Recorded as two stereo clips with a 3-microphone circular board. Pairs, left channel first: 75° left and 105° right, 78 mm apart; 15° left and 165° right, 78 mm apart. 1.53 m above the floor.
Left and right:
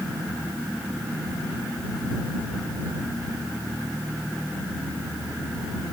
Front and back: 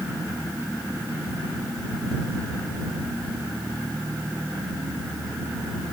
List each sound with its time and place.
Only background noise.